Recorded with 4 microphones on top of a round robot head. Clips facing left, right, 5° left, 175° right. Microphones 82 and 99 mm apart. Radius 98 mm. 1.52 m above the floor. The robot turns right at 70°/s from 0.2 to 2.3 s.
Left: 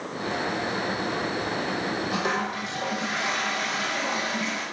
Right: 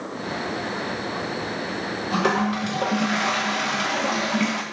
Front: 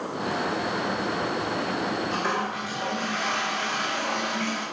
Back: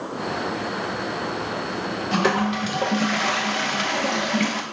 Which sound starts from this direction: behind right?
A toilet flushing, at 2.1 s.